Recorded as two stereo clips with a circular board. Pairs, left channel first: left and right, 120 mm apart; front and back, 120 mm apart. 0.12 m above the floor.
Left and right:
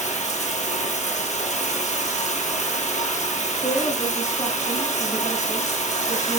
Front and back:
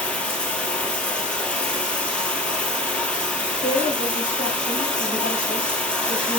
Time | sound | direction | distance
0.0 | running water | 80° left | 2.0 m
3.6 | a woman speaking | 25° left | 5.5 m